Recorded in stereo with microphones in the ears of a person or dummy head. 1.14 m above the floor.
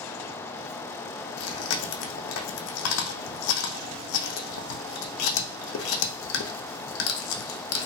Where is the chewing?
75° left (ahead or behind), 0.5 m.